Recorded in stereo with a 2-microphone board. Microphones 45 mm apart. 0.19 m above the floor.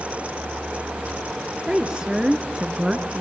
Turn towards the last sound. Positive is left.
turn(degrees=-10)  # may be behind; listen again after turning